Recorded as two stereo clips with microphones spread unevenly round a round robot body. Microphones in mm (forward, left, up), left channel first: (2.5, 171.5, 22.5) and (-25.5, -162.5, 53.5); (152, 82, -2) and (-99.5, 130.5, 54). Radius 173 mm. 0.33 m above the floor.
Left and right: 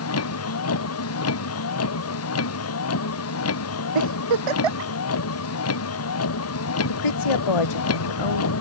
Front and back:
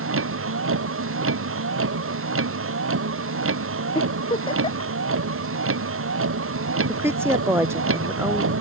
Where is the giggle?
90° right.